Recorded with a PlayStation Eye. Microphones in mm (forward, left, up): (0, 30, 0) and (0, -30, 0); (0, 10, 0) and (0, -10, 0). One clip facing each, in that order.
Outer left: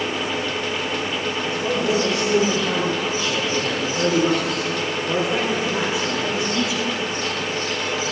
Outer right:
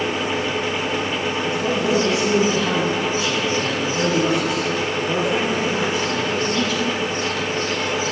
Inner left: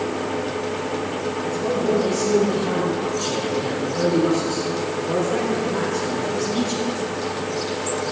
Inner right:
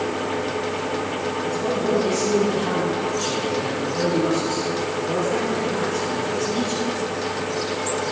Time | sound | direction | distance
1.4 | a man speaking | 40° right (ahead or behind) | 4 m